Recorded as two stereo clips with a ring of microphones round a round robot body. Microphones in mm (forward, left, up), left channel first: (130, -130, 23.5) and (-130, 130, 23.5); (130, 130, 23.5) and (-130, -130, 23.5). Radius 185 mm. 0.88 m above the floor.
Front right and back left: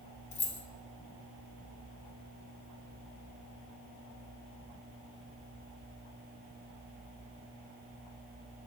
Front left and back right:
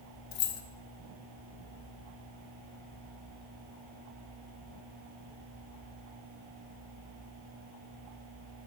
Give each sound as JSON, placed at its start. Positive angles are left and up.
{"t": 0.3, "sound": "keys jangling", "azimuth_deg": 25, "distance_m": 0.7}